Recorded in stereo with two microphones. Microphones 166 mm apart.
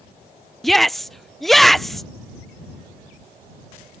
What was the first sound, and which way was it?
A shout, centre (ahead or behind).